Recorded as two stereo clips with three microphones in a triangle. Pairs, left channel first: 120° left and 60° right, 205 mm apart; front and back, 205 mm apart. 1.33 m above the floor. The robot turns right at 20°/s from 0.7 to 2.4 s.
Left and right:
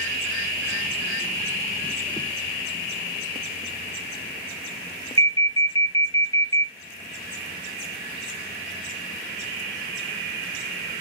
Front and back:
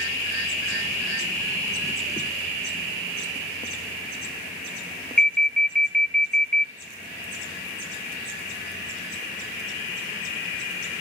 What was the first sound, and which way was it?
An alarm, 80° right.